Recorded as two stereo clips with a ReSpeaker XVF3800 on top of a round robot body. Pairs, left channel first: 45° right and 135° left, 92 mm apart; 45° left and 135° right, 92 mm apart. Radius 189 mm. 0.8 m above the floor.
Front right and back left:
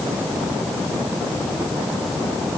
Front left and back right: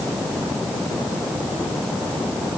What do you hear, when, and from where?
Only background noise.